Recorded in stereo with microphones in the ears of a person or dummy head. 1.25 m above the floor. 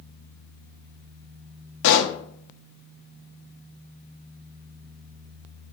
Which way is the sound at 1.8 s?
65° left (ahead or behind).